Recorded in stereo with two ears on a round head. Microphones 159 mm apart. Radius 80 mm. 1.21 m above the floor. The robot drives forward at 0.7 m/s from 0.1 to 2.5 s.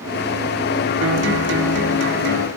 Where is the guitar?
75° right (ahead or behind), 3.5 m; by 2.5 s 60° right (ahead or behind), 4 m.